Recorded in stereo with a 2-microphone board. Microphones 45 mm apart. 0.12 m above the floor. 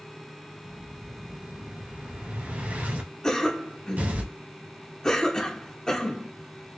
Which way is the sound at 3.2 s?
15° left (ahead or behind).